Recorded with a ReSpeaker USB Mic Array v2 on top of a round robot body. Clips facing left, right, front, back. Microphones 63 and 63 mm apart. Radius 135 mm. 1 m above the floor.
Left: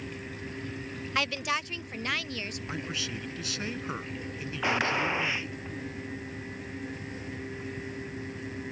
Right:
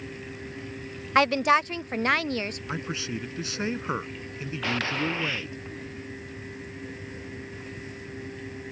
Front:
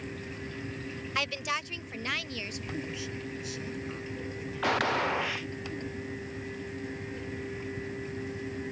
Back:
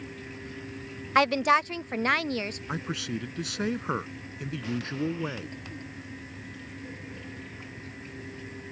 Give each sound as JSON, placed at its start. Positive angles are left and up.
{"t": 1.1, "sound": "a woman speaking", "azimuth_deg": -135}
{"t": 2.7, "sound": "a man speaking", "azimuth_deg": -155}
{"t": 4.6, "sound": "a gunshot", "azimuth_deg": 20}